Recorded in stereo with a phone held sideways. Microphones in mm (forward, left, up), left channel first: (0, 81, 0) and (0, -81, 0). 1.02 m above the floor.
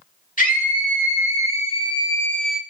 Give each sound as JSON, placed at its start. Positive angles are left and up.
{"t": 0.4, "sound": "a scream", "side_deg": 55, "distance_m": 1.9}